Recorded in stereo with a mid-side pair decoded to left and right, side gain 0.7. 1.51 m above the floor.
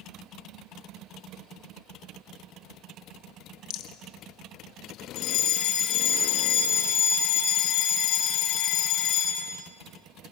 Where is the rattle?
60° left, 1.7 m.